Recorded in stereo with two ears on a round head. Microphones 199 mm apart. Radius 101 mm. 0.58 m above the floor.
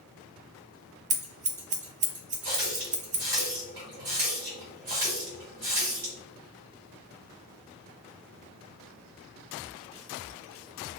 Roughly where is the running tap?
Right.